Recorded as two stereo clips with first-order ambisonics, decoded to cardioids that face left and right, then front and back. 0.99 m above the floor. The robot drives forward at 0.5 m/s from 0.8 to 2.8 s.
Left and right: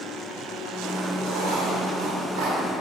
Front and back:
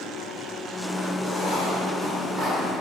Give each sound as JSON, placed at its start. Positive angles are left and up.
{"t": 1.2, "sound": "writing", "azimuth_deg": -80, "distance_m": 3.5}